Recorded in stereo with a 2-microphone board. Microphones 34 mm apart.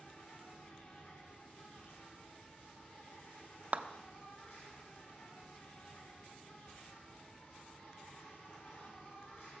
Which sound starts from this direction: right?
A clap, at 3.7 s.